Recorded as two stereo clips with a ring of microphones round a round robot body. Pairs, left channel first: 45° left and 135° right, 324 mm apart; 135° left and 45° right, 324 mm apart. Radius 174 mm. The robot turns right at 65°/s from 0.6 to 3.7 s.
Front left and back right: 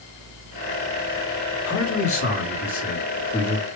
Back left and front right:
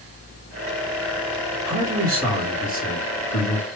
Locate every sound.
1.6 s a man speaking: 5° left, 1.8 m; by 3.7 s 135° left, 1.8 m